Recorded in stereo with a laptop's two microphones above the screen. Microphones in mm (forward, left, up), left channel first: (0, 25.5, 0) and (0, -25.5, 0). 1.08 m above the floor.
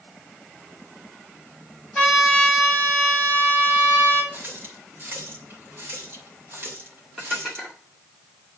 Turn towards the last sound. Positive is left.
turn(degrees=0)  # may be behind; listen again after turning